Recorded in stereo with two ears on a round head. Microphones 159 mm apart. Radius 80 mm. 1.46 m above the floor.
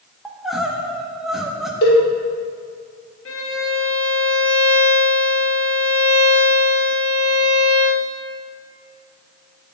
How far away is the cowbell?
About 1.4 m.